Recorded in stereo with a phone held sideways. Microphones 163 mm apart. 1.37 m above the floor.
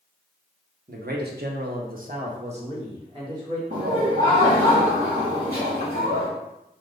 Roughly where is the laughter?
Right.